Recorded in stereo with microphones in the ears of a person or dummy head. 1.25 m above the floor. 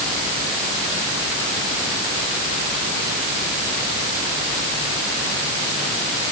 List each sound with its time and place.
Only background noise.